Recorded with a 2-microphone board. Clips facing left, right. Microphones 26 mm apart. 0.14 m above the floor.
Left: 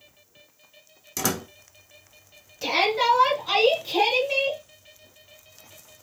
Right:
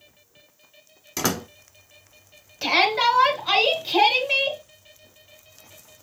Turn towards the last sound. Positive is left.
turn(degrees=-30)  # may be behind; listen again after turning